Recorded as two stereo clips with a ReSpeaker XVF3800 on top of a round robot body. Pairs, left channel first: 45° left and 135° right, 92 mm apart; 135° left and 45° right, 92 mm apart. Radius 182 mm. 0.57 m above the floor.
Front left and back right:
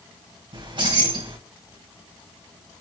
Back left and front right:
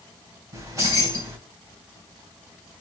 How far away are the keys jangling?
About 3.5 m.